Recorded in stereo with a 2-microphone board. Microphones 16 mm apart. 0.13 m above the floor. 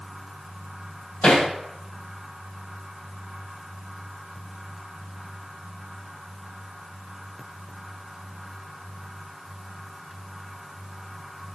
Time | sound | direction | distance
1.2 | hammering | 70° left (ahead or behind) | 3.5 m